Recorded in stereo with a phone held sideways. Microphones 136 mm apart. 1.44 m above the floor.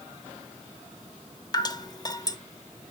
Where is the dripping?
30° left (ahead or behind), 0.8 m.